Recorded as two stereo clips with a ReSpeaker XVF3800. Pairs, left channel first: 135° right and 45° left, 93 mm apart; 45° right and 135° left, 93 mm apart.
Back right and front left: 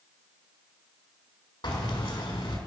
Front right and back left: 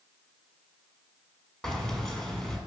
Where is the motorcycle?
I don't hear a motorcycle.